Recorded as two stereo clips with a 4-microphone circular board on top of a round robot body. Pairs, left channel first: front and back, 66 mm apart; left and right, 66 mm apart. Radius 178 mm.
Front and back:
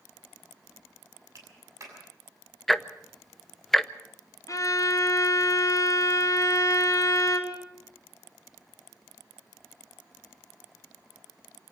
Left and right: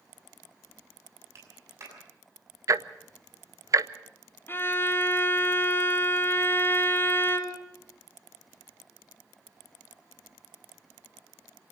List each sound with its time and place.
1.4 s a clap: 135° right, 7 m
2.7 s ticking: 85° right, 1.0 m
4.5 s a violin: 35° left, 2 m